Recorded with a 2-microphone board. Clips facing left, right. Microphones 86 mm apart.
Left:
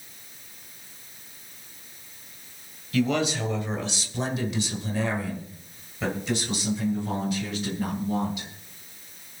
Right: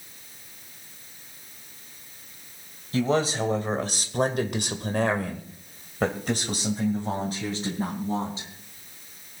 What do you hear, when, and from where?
2.9 s a man speaking: 30° right (ahead or behind), 2.5 m; by 8.5 s 35° right (ahead or behind), 4 m